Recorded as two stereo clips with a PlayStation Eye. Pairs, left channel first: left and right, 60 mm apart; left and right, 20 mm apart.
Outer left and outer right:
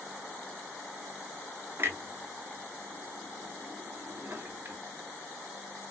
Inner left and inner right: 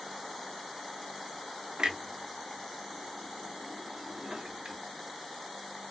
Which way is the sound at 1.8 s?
45° right (ahead or behind).